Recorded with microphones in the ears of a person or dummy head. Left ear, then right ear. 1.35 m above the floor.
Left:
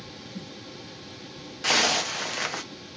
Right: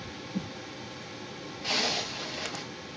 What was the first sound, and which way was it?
A zipper, 65° left (ahead or behind).